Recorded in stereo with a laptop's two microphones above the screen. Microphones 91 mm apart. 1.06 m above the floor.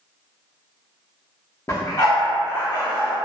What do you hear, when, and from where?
1.7 s a dog barking: 35° left (ahead or behind), 0.7 m; by 3.1 s 55° left (ahead or behind), 1.3 m